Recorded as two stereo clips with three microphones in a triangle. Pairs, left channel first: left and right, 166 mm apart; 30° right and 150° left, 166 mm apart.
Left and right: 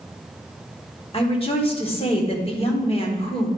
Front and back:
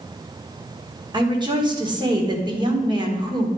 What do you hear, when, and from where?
1.1 s a woman speaking: 110° left, 1.4 m